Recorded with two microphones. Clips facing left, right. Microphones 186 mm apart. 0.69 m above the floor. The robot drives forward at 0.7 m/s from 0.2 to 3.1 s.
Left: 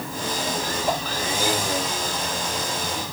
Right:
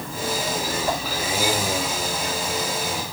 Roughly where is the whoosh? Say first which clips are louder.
Left 2 dB; centre.